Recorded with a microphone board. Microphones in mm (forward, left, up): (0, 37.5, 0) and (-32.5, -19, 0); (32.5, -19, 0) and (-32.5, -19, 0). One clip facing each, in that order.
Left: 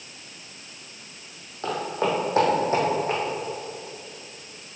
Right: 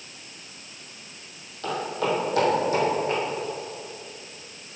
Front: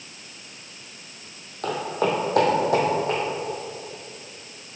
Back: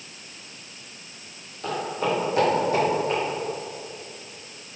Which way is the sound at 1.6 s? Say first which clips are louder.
Left 1 dB, front 2 dB; 5° left.